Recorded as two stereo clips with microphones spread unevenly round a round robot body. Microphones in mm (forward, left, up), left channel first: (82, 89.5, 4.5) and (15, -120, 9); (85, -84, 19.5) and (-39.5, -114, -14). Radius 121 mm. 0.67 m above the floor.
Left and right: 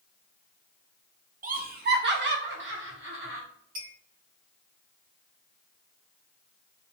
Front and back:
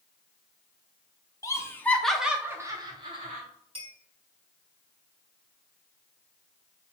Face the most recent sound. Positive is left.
turn(degrees=-125)